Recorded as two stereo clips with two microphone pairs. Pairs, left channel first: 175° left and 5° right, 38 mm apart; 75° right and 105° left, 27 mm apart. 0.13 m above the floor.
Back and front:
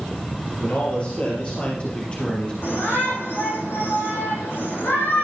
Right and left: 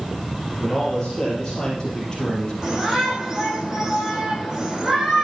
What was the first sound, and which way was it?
A man speaking, 145° right.